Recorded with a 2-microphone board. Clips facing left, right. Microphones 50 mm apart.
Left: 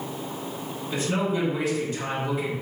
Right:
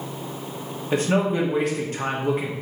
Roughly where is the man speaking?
Right.